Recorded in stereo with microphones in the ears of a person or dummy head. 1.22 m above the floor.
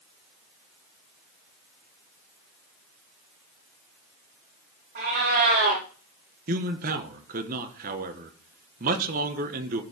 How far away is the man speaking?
About 1.2 m.